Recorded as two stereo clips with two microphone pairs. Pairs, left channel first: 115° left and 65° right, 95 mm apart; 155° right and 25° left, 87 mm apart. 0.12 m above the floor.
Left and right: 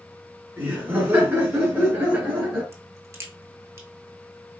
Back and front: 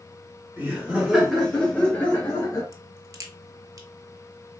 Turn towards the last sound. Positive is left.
turn(degrees=-15)